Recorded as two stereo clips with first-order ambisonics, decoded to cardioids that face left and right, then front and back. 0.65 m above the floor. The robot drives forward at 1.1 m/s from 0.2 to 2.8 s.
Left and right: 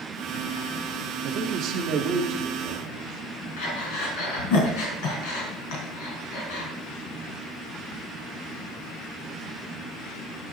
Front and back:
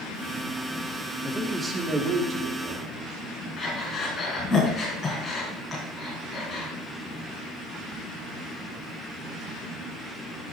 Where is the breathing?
85° left, 4 m.